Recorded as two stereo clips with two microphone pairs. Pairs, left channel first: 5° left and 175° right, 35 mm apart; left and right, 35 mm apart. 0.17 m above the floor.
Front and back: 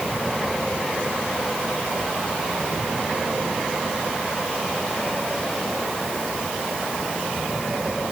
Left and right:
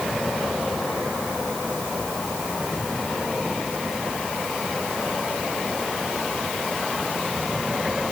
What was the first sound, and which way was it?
Only background noise.